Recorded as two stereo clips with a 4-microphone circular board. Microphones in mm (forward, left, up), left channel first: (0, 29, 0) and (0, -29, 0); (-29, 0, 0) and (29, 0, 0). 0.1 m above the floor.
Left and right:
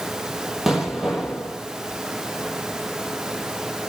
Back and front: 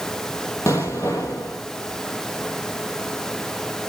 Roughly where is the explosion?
Behind.